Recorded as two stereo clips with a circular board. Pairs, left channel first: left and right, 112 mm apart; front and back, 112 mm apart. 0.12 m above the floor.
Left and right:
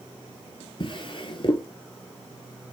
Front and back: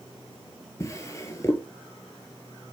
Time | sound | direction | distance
0.8 | a drawer | 60° left | 1.0 m